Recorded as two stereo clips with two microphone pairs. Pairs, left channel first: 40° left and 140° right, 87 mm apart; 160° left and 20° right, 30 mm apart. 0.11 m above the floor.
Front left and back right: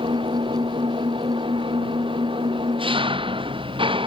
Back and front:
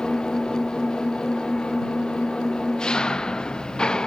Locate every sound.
0.0 s an engine running: 140° right